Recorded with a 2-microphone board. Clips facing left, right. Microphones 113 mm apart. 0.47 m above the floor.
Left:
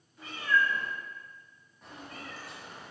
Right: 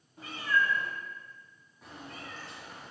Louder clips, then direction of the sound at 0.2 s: Left 1 dB; 45° right (ahead or behind).